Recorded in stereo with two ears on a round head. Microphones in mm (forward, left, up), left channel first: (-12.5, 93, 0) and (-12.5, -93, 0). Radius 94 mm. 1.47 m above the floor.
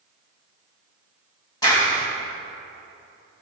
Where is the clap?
20° left (ahead or behind), 1.7 m.